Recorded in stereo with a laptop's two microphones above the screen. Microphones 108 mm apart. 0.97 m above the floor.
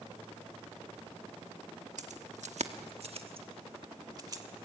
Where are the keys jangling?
85° right, 1.1 m; by 4.4 s 30° right (ahead or behind), 1.7 m.